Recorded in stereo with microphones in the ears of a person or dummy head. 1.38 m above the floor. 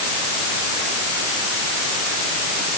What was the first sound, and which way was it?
Only background noise.